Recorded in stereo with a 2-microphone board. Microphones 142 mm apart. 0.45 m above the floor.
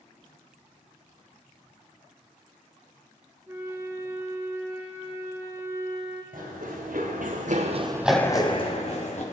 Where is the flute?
20° right (ahead or behind), 1.1 m.